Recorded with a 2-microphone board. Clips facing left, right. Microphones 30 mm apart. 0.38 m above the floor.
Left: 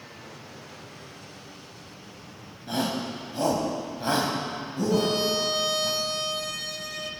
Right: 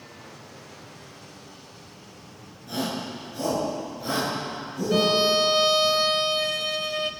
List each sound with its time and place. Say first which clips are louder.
2.7 s a shout: left 1 dB; 45° left (ahead or behind), 2.5 m
4.9 s a violin: right 5 dB; 45° right (ahead or behind), 0.6 m